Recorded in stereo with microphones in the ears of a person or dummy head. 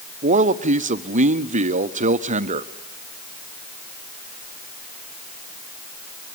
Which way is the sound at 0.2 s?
35° right (ahead or behind).